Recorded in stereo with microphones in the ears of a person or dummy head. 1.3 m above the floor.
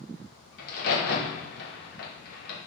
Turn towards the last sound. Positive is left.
turn(degrees=55)  # may be behind; listen again after turning